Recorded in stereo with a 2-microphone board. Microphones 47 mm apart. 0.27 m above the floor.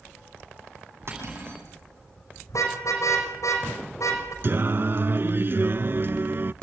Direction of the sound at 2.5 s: 85° left.